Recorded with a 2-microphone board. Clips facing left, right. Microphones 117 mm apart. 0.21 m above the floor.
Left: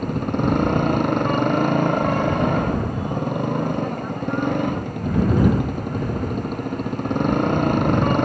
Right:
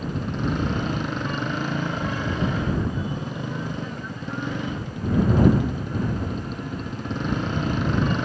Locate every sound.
0.0 s a motorcycle: 60° left (ahead or behind)